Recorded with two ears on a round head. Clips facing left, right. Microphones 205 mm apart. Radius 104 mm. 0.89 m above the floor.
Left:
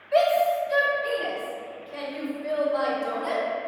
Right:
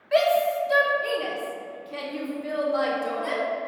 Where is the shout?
80° right, 1.5 m; by 3.4 s 35° right (ahead or behind), 2.5 m.